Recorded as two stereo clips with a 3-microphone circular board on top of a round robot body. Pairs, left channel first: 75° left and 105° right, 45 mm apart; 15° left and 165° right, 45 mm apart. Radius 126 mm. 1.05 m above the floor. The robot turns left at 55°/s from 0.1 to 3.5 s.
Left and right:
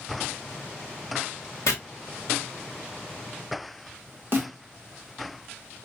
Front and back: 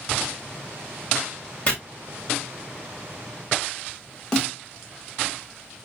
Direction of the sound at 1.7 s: 80° left.